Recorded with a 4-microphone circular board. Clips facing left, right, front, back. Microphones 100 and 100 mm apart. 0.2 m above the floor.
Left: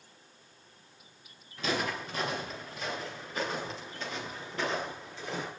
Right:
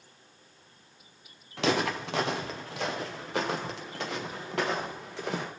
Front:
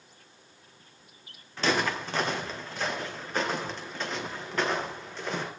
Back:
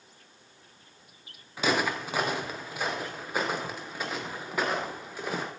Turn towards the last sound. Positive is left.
turn(degrees=-100)